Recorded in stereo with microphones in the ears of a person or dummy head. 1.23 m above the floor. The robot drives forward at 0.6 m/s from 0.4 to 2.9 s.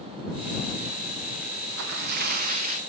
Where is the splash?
70° right (ahead or behind), 0.8 m; by 2.8 s 40° right (ahead or behind), 1.2 m.